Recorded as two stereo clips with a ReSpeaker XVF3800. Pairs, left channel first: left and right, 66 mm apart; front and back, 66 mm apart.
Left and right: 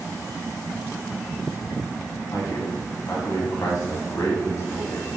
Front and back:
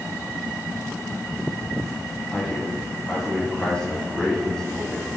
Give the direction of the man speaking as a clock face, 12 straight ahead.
9 o'clock.